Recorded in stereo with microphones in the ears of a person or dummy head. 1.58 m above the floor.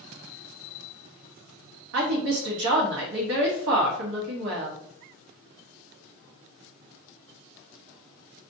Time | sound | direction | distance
1.9 | a woman speaking | 65° right (ahead or behind) | 0.9 m